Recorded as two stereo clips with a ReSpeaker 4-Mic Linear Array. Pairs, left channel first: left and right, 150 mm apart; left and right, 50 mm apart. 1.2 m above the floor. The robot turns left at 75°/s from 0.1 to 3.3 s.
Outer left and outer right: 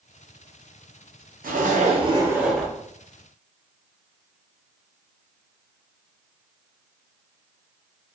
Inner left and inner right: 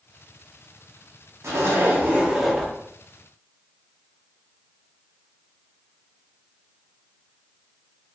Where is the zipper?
95° right, 0.7 m; by 2.7 s 165° left, 0.7 m.